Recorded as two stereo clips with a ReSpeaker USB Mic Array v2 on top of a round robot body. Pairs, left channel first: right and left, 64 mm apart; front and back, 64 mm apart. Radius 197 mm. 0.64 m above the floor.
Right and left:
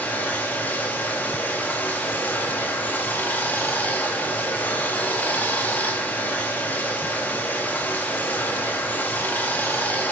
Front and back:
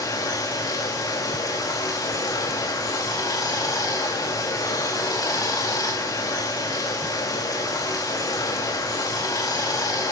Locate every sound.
0.0 s running water: 25° right, 3.5 m